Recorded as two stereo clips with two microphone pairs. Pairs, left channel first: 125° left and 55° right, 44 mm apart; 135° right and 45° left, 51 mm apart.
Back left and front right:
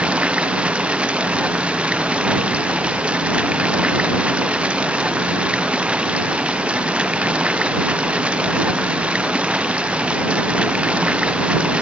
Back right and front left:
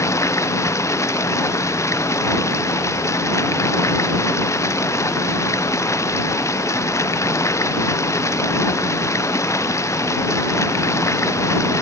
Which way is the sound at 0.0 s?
120° right.